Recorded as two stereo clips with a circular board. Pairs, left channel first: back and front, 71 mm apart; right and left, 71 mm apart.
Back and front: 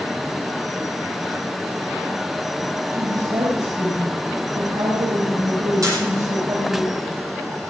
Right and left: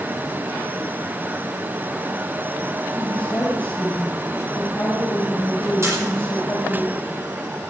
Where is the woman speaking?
20° right, 5 m.